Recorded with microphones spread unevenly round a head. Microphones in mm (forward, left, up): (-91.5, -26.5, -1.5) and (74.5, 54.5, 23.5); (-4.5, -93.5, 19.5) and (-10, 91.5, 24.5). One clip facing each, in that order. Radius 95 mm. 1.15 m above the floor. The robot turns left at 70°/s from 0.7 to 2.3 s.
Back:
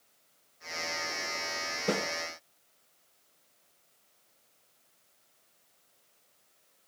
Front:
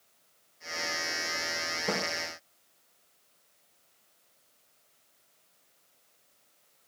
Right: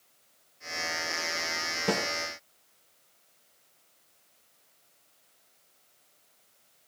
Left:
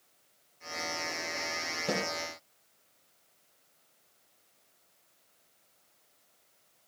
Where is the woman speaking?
I don't hear a woman speaking.